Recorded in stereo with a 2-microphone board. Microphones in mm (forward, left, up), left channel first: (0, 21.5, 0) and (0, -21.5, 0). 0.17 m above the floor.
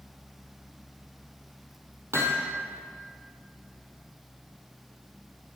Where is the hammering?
75° right (ahead or behind), 3.5 m.